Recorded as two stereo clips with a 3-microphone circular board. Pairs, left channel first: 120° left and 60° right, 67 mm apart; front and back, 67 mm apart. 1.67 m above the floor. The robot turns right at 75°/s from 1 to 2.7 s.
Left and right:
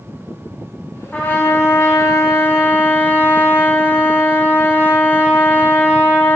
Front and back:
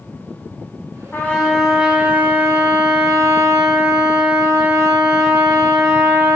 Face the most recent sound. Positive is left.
turn(degrees=170)